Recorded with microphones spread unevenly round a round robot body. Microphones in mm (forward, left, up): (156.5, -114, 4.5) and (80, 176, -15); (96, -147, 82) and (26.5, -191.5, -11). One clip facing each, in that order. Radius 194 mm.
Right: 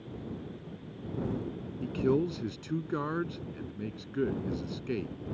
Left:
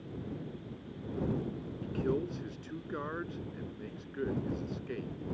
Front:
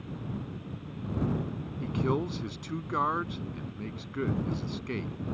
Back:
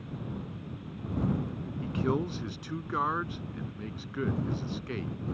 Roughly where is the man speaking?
Ahead right.